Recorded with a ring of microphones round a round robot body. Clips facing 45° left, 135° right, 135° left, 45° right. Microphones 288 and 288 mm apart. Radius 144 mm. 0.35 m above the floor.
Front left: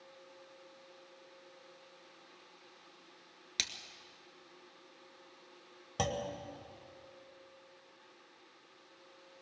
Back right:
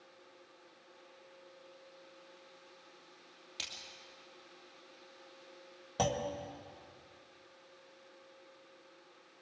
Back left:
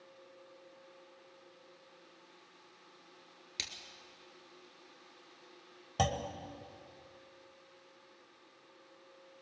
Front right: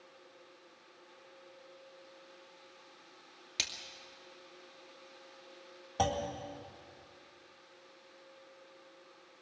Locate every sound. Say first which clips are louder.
3.6 s a splash: front left 5 dB, front right 4 dB; 50° left, 2.5 m
6.0 s a clunk: back right 2 dB, front right 2 dB; 120° left, 1.7 m